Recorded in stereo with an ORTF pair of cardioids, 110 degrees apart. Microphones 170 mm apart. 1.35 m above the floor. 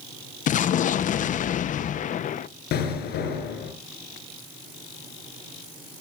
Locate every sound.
0.5 s an explosion: 50° left, 0.9 m
2.7 s an explosion: 70° left, 6.5 m